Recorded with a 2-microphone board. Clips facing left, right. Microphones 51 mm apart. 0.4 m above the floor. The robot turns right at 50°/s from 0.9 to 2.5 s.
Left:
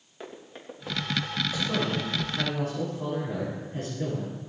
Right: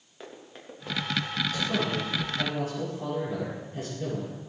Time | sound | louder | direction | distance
0.2 | running footsteps | left 2 dB | centre (ahead or behind) | 3.5 m
1.5 | a man speaking | left 1 dB | 10° left | 7 m